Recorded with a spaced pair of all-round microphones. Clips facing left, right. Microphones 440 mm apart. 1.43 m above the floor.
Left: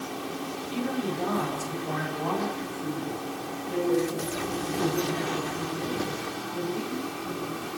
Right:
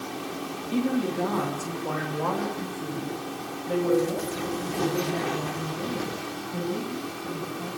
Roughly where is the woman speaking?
Right.